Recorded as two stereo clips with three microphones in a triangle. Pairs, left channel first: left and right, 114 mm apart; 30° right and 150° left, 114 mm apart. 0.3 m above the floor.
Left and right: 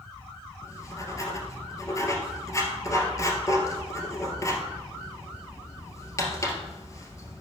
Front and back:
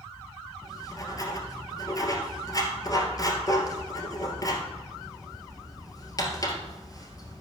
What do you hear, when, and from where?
0.6 s writing: 30° left, 1.9 m